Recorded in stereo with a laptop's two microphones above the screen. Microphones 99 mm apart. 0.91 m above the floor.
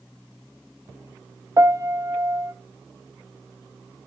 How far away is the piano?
About 0.6 m.